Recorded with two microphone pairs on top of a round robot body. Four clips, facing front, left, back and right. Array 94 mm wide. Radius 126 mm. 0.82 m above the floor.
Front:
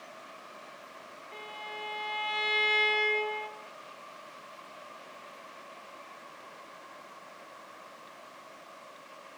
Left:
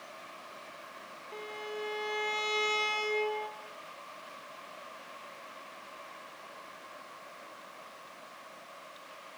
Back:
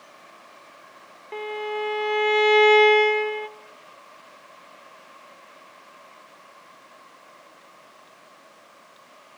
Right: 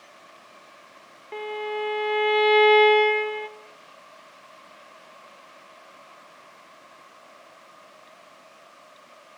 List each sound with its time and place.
1.3 s a violin: 145° right, 1.7 m